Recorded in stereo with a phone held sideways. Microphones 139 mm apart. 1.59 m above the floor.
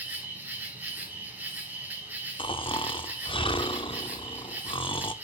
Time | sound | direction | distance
0.0 | an insect | 15° right (ahead or behind) | 2 m
2.4 | snoring | 40° left (ahead or behind) | 0.7 m